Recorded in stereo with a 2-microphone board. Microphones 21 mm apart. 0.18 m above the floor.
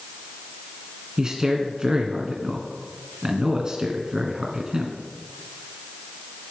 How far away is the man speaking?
About 1.9 m.